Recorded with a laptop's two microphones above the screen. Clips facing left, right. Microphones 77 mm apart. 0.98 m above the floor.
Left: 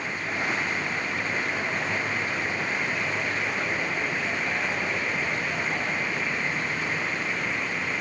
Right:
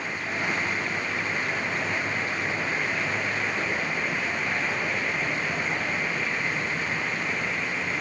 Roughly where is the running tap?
No running tap in this recording.